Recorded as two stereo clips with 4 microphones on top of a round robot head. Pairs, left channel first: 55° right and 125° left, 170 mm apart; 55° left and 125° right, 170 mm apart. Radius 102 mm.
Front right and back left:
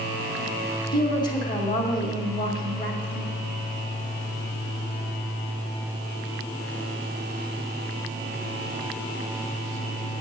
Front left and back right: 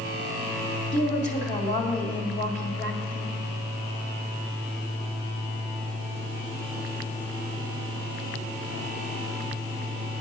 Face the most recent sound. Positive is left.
turn(degrees=10)